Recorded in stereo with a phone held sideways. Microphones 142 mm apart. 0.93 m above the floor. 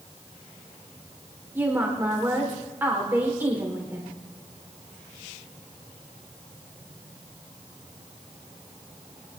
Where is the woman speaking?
15° right (ahead or behind), 3.5 m.